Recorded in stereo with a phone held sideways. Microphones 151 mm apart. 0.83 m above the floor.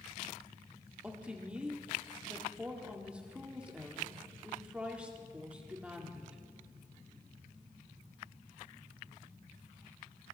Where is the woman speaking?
5° right (ahead or behind), 1.8 m.